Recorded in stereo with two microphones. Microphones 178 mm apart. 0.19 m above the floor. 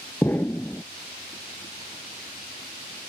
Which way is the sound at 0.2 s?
10° left (ahead or behind).